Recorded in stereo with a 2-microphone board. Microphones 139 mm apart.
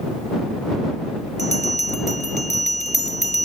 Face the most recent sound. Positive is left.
turn(degrees=-60)  # may be behind; listen again after turning